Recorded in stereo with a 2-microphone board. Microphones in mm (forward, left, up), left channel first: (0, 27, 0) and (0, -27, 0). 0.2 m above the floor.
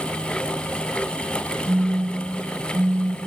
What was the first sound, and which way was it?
A phone buzzing, 10° left (ahead or behind).